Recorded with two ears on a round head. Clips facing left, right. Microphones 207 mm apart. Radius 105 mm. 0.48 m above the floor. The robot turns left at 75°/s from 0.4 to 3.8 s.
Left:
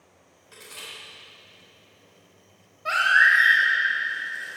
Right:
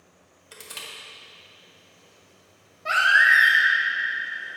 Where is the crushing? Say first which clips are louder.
Right 1 dB; 65° right (ahead or behind), 2 m; by 0.9 s 70° right (ahead or behind), 2 m.